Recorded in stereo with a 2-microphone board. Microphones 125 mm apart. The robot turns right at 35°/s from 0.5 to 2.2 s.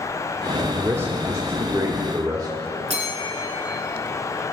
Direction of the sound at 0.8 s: 15° right (ahead or behind).